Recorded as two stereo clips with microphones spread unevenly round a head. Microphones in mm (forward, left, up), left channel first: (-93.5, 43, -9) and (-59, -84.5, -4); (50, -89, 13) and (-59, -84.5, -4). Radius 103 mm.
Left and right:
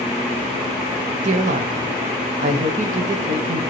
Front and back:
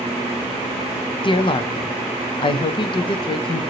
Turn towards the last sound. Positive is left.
turn(degrees=-45)